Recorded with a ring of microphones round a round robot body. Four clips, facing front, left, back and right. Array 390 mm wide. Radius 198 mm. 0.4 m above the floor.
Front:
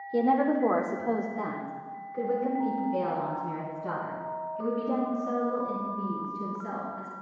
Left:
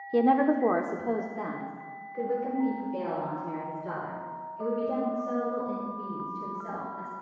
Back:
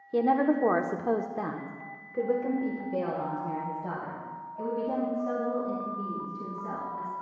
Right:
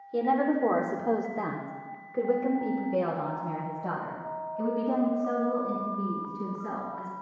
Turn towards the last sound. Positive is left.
turn(degrees=-105)